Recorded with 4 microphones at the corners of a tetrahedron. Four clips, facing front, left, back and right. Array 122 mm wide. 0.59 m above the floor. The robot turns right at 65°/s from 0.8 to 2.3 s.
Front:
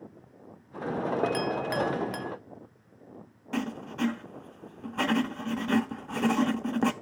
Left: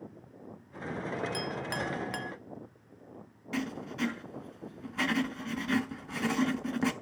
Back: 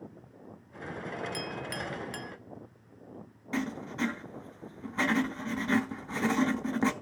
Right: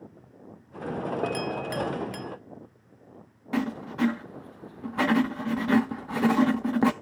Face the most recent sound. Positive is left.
turn(degrees=-65)